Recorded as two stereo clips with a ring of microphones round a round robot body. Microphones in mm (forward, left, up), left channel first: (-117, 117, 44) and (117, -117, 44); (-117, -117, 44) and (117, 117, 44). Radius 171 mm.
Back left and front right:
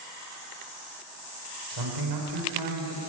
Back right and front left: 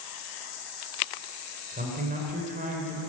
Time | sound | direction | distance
1.7 | a man speaking | 20° right | 3.5 m